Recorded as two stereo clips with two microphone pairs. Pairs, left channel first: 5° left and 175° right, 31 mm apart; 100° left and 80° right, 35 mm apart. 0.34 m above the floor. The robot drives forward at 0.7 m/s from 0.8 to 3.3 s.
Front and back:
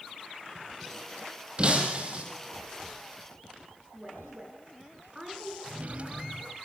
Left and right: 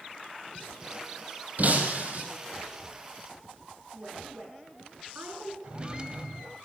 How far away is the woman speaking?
About 6.5 m.